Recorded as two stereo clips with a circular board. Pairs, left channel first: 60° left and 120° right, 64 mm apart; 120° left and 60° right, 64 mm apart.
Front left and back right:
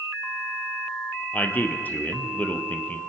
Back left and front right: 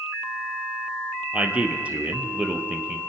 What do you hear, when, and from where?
1.3 s a man speaking: 5° left, 1.8 m